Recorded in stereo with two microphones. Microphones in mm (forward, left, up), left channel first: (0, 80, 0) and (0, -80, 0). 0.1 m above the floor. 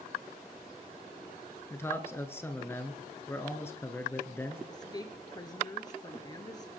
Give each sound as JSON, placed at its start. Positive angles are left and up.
{"t": 1.7, "sound": "a man speaking", "side_deg": 15, "distance_m": 1.2}
{"t": 4.7, "sound": "a woman speaking", "side_deg": 25, "distance_m": 1.4}